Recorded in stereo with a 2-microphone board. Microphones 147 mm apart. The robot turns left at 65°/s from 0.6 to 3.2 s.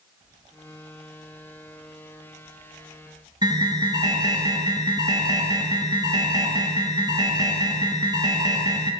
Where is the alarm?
25° right (ahead or behind), 2.5 m.